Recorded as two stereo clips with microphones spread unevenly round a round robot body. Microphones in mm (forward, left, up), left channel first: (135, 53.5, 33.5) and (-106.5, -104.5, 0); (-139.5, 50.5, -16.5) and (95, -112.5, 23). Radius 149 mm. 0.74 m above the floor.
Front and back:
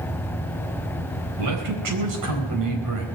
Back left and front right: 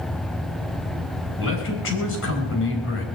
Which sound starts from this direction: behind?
A man speaking, at 1.4 s.